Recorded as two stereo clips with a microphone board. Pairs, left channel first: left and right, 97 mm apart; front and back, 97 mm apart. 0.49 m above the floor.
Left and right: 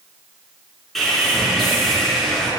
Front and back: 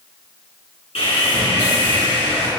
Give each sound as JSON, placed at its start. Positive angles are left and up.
{"t": 0.9, "sound": "sawing", "azimuth_deg": 0, "distance_m": 3.0}